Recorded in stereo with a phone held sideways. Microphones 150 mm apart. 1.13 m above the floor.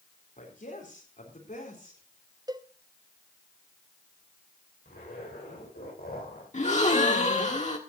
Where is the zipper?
75° left (ahead or behind), 9 m.